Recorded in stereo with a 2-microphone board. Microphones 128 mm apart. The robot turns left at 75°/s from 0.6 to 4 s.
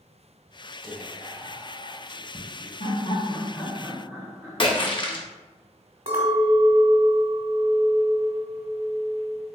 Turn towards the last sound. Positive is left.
turn(degrees=-50)  # may be behind; listen again after turning